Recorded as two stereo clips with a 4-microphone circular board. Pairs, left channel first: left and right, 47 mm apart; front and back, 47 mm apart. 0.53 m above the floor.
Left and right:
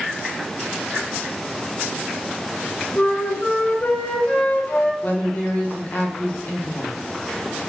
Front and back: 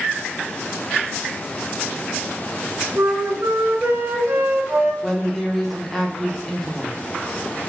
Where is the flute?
145° left, 0.6 m.